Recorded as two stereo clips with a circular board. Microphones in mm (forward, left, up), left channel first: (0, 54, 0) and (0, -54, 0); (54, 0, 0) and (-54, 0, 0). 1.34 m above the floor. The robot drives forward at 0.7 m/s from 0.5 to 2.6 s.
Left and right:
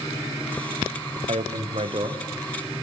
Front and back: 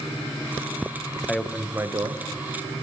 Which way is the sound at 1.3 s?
80° right.